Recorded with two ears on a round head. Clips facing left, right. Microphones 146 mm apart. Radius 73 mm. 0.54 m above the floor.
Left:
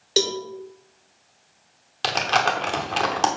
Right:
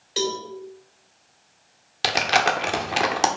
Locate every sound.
0.2 s a cowbell: 50° left (ahead or behind), 2.0 m
2.0 s crumpling: 10° right (ahead or behind), 1.0 m